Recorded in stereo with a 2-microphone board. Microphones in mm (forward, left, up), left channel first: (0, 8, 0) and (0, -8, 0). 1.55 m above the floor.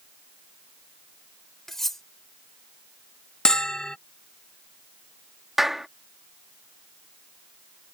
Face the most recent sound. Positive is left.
turn(degrees=-20)  # may be behind; listen again after turning